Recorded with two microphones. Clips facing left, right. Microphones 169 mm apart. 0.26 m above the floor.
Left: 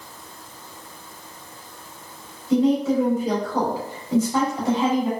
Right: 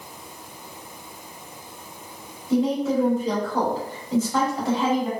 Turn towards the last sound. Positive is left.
turn(degrees=25)  # may be behind; listen again after turning